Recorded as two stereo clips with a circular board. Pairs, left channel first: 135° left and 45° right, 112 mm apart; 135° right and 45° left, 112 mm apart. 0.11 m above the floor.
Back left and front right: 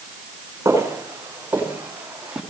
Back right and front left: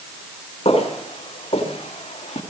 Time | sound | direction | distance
0.7 | footsteps | 110° right | 6 m